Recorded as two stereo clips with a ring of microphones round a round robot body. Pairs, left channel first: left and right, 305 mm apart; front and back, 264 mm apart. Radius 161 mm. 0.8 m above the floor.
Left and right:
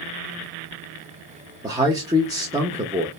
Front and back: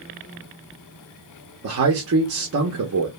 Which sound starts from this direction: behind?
A man speaking, at 1.6 s.